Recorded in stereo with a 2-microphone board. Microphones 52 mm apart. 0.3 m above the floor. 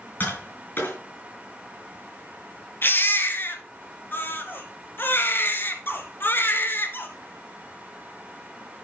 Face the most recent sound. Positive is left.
turn(degrees=45)  # may be behind; listen again after turning